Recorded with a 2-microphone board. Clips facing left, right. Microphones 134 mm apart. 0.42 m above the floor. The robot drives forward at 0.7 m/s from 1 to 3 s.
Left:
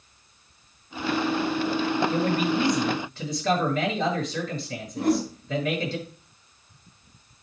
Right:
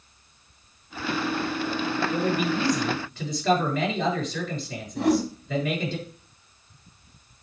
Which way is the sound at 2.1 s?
Centre (ahead or behind).